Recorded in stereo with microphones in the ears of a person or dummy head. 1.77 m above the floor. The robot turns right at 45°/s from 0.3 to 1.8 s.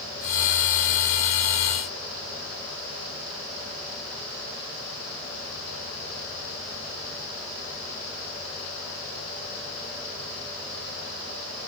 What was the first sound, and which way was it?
Only background noise.